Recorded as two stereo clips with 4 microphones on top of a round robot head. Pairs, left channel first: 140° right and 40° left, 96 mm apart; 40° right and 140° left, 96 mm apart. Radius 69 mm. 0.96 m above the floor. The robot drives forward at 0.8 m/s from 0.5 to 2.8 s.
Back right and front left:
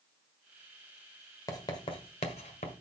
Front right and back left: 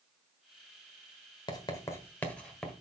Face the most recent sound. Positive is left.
turn(degrees=-130)